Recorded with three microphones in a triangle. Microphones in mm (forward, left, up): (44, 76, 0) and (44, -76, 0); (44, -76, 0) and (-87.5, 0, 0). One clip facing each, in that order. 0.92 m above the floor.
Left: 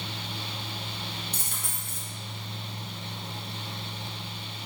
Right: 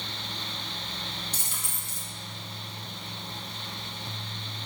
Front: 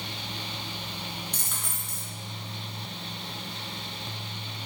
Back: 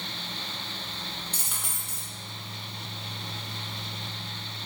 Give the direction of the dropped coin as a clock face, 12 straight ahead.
10 o'clock.